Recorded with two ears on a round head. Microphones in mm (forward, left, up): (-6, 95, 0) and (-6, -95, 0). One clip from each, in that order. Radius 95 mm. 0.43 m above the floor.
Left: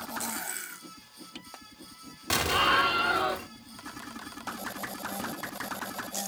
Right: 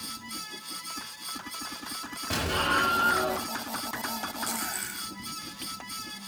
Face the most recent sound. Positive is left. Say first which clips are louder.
# left 3 dB
turn(degrees=55)  # may be behind; listen again after turning